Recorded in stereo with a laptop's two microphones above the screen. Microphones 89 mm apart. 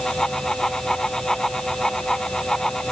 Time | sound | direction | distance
0.0 | a fan | 5° left (ahead or behind) | ?